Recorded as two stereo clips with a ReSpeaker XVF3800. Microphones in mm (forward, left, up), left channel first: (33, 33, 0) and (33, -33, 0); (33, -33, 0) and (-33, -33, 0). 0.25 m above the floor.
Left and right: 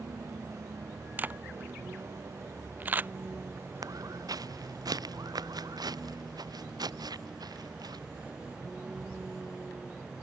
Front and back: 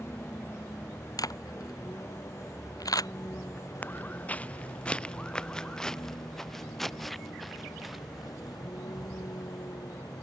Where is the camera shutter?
25° right.